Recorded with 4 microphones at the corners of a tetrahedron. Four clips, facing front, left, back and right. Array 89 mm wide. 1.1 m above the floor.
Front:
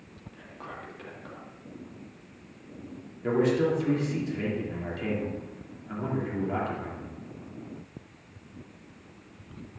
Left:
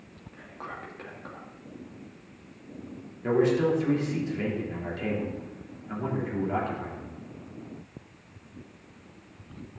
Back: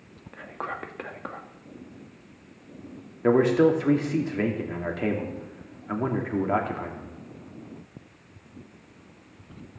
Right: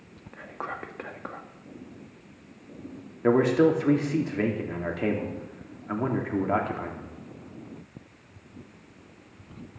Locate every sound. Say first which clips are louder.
0.3 s whispering: right 5 dB, back 9 dB; 150° right, 1.6 m
3.2 s a man speaking: right 3 dB, back 5 dB; 140° right, 3 m